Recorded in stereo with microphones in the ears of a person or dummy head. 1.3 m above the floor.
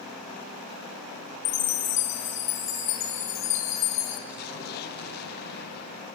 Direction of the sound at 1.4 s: 30° left (ahead or behind).